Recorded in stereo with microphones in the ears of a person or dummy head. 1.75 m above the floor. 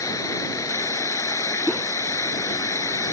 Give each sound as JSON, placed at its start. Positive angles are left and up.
{"t": 0.0, "sound": "running water", "side_deg": 15}
{"t": 1.7, "sound": "a whoosh", "side_deg": 5}